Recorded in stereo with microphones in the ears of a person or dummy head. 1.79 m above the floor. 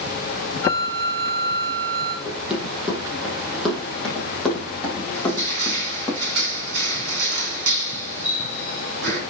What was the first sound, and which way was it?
A flute, 20° left (ahead or behind).